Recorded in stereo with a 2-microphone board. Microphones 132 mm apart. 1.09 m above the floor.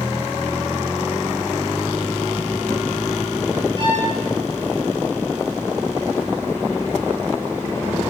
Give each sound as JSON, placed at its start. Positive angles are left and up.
{"t": 3.8, "sound": "a violin", "side_deg": -45, "distance_m": 6.0}